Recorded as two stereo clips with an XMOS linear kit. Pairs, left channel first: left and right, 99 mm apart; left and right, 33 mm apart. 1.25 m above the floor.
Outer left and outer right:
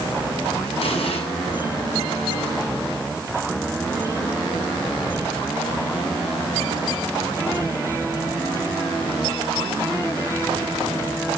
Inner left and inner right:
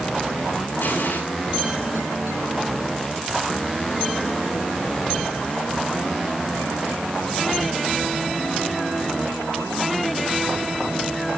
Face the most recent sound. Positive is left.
turn(degrees=85)